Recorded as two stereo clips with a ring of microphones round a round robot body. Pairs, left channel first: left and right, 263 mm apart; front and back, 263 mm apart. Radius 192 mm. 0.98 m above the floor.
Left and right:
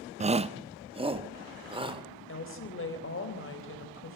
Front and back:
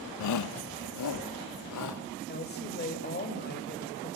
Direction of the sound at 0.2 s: 20° right.